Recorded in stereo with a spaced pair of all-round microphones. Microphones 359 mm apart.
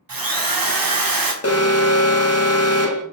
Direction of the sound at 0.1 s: 70° right (ahead or behind).